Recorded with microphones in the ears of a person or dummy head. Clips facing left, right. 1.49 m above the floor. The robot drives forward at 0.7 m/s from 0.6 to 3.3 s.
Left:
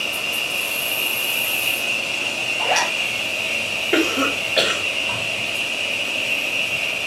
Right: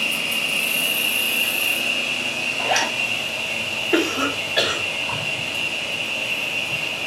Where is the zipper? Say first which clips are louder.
Left 1 dB; 10° right (ahead or behind), 1.0 m; by 2.9 s 5° right (ahead or behind), 1.2 m.